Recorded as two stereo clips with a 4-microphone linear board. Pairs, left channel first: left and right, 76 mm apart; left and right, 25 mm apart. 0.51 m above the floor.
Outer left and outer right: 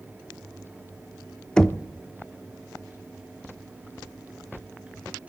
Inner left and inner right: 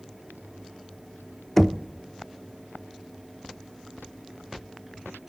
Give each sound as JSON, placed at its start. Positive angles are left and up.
{"t": 1.6, "sound": "knocking", "side_deg": 10, "distance_m": 0.5}